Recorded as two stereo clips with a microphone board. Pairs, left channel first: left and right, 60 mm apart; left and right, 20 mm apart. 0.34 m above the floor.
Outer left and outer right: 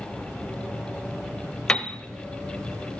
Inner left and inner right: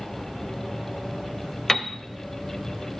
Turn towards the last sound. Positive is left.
turn(degrees=20)  # may be behind; listen again after turning